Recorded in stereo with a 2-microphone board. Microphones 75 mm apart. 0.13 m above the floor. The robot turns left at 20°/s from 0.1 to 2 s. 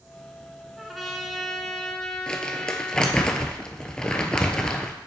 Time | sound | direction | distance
0.8 | a trumpet | centre (ahead or behind) | 0.9 m
2.3 | crumpling | 10° left (ahead or behind) | 0.8 m